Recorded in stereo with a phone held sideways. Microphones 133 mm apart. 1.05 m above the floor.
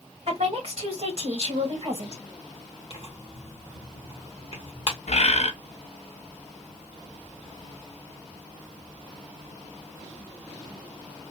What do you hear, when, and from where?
0.3 s a woman speaking: 50° right (ahead or behind), 1.7 m
2.9 s tearing paper: 50° left (ahead or behind), 1.2 m
5.1 s a bird: 60° left (ahead or behind), 0.7 m